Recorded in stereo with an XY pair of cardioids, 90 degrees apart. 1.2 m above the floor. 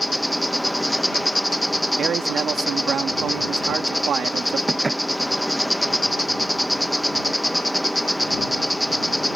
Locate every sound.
0.0 s an insect: straight ahead
2.0 s a man speaking: 70° right
4.7 s dishes clattering: 30° right